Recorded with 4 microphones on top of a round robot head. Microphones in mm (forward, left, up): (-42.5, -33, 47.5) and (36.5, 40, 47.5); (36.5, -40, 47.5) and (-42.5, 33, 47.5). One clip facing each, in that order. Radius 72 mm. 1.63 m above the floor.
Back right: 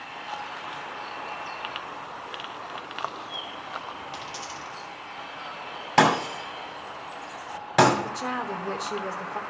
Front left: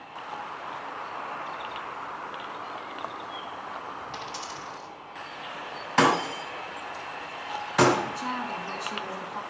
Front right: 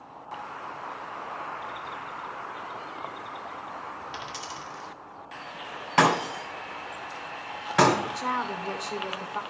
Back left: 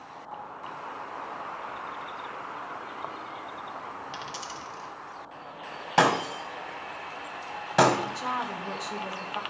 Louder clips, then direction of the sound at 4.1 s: Even, even; 145° left.